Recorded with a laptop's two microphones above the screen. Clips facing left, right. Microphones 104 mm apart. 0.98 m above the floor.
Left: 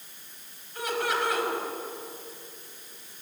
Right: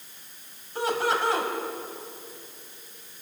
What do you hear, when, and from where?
0.8 s laughter: 30° right (ahead or behind), 6 m